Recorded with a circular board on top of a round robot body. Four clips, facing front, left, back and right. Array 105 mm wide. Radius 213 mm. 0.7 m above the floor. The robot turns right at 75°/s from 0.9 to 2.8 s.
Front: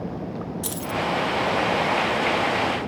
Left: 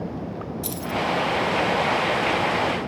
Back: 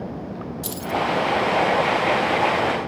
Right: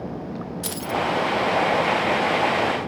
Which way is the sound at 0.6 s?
75° right.